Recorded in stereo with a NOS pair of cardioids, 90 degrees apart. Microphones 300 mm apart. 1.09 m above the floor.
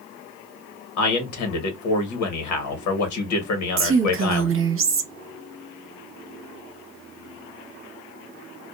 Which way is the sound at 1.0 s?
70° left.